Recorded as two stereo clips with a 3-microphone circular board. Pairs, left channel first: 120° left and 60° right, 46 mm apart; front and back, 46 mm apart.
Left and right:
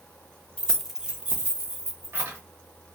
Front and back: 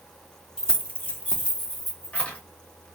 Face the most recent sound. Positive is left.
turn(degrees=-60)